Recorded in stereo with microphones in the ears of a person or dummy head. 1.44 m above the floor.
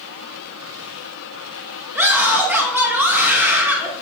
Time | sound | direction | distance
1.9 | a scream | 5° right (ahead or behind) | 2 m